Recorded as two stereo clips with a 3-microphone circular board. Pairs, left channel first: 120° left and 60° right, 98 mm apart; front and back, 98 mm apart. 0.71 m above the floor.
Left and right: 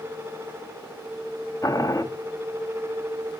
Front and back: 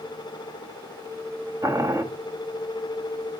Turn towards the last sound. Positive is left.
turn(degrees=150)